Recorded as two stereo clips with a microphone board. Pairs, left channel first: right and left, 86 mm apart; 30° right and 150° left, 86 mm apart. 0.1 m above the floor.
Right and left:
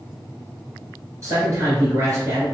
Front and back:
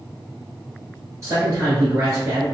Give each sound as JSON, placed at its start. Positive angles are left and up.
{"t": 1.2, "sound": "a man speaking", "azimuth_deg": 120, "distance_m": 1.6}